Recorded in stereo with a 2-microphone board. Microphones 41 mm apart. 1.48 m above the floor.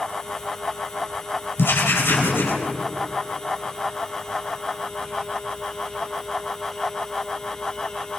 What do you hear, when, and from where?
1.6 s writing: 70° left (ahead or behind), 4 m